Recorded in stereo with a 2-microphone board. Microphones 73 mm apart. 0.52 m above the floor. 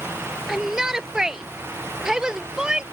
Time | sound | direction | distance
0.5 | a shout | 10° right (ahead or behind) | ?